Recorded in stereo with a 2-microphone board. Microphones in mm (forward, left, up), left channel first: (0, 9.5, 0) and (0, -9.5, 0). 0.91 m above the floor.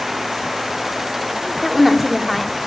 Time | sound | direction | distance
1.6 | a woman speaking | 5° left (ahead or behind) | 1.8 m